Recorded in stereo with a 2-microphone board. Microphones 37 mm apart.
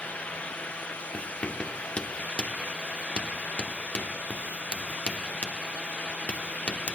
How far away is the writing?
About 1.8 m.